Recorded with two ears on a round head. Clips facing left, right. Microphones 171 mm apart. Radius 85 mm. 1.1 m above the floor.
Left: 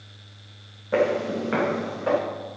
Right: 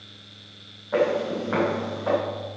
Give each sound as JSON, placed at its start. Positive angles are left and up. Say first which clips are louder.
{"t": 0.9, "sound": "footsteps", "louder": "even", "side_deg": 35, "distance_m": 5.0}